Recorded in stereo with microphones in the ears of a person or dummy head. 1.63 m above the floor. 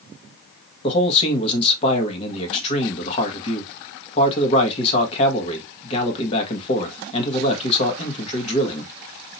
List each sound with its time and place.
0.8 s a man speaking: 30° left (ahead or behind), 1.3 m